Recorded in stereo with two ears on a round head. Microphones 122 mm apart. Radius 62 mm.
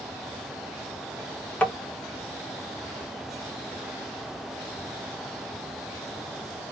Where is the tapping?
10° left (ahead or behind), 0.5 m.